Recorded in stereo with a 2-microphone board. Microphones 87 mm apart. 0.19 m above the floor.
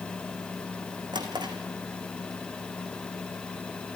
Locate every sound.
1.1 s a drawer: 60° right (ahead or behind), 3.5 m